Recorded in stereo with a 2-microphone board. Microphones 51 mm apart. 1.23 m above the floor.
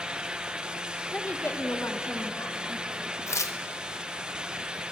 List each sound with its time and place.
1.1 s a woman speaking: 30° left (ahead or behind), 1.3 m; by 3.1 s 80° left, 3.5 m
3.3 s tearing paper: 85° left, 0.9 m